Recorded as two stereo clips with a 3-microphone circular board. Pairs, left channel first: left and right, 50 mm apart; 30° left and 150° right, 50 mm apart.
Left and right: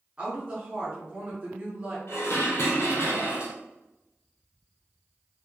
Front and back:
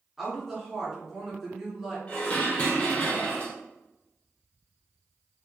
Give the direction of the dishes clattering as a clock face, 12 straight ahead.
9 o'clock.